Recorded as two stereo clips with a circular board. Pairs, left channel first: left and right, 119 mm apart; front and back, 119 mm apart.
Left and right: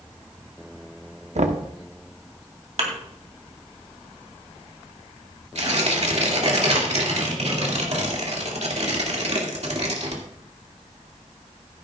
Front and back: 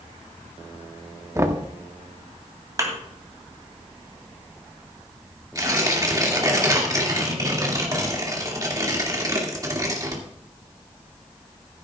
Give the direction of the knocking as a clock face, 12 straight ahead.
4 o'clock.